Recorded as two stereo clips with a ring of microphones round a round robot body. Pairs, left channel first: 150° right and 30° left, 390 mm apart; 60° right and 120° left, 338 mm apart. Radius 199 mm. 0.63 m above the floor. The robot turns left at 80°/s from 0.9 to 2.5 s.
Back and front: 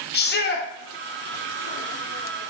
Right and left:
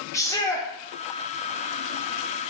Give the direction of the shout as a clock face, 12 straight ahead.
4 o'clock.